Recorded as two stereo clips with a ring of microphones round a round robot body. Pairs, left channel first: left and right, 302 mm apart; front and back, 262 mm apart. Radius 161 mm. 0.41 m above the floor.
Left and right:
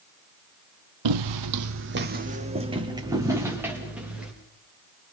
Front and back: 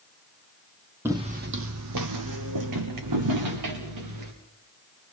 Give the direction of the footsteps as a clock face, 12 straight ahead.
3 o'clock.